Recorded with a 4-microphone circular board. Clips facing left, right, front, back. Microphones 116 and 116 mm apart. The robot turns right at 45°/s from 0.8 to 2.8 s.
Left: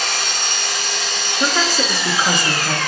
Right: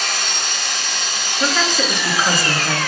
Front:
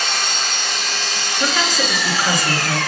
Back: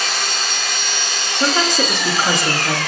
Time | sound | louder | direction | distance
0.0 | an engine running | left 1 dB, even | 95° left | 1.8 m
1.4 | a woman speaking | even, back 3 dB | 145° left | 0.6 m